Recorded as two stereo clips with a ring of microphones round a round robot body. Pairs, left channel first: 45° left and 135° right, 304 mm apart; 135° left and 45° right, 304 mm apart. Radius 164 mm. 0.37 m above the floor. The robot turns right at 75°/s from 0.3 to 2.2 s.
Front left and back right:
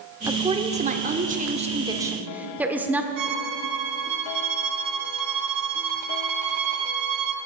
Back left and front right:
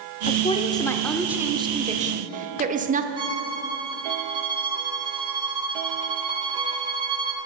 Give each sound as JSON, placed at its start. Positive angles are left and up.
{"t": 0.3, "sound": "a woman speaking", "azimuth_deg": 160, "distance_m": 1.3}
{"t": 3.2, "sound": "a violin", "azimuth_deg": -120, "distance_m": 1.4}